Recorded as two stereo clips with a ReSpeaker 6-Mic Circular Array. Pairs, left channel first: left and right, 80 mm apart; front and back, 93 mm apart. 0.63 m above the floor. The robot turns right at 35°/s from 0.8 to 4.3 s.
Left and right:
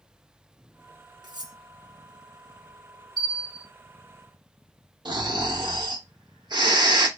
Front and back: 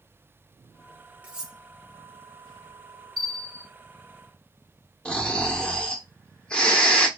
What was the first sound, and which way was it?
Cutlery clinking, 105° right.